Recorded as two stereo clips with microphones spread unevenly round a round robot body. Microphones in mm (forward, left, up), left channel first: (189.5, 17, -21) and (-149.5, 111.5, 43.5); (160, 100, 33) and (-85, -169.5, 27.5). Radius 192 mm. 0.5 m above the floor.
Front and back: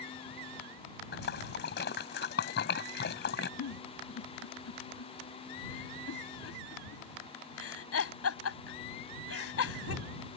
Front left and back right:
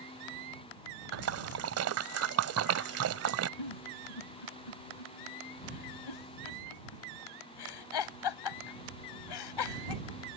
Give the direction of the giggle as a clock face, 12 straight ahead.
11 o'clock.